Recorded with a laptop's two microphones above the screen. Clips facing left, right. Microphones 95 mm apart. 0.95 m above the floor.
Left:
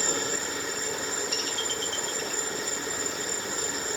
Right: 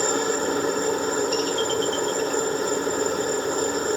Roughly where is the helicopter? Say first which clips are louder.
Right 9 dB; right.